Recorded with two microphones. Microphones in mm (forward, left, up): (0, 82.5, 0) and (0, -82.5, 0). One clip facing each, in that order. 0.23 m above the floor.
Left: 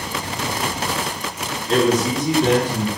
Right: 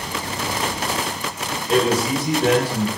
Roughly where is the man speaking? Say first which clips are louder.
Left 1 dB; centre.